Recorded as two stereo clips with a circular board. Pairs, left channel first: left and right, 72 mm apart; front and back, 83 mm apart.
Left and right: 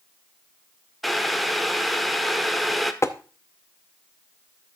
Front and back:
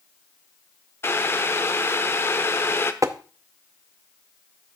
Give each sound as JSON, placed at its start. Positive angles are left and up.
{"t": 1.0, "sound": "boiling", "azimuth_deg": 0, "distance_m": 0.7}
{"t": 3.0, "sound": "tapping", "azimuth_deg": 135, "distance_m": 0.6}